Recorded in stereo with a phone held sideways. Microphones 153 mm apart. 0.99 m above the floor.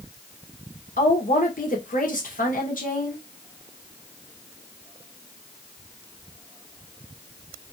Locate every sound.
1.0 s a woman speaking: 60° left (ahead or behind), 1.2 m